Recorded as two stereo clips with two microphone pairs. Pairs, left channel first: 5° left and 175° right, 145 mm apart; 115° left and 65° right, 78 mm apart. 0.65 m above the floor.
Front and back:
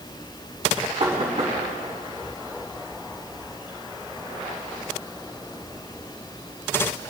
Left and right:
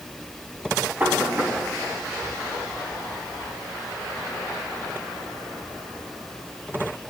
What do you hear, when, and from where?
1.0 s knocking: 130° right, 3 m